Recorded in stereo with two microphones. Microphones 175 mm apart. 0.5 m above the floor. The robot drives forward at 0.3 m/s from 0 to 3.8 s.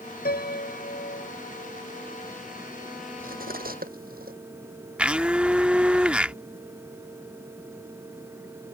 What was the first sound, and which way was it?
A piano, 60° left (ahead or behind).